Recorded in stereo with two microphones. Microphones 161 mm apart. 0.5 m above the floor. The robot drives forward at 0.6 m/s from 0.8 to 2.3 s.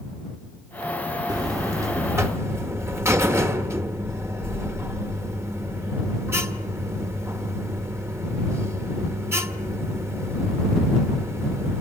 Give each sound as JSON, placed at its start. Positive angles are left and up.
{"t": 1.3, "sound": "a buzzer", "side_deg": -25, "distance_m": 1.0}